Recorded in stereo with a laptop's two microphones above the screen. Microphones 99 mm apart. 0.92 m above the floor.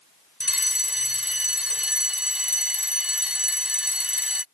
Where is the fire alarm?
10° right (ahead or behind).